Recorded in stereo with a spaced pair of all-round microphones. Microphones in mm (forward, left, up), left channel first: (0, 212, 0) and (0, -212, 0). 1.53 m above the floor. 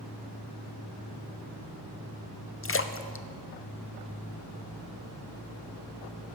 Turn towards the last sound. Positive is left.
turn(degrees=30)  # may be behind; listen again after turning